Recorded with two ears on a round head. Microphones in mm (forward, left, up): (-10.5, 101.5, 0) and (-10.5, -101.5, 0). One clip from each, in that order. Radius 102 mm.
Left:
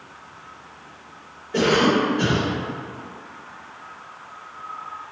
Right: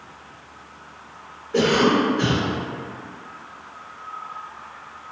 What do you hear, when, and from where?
1.5 s a cough: 10° left (ahead or behind), 1.4 m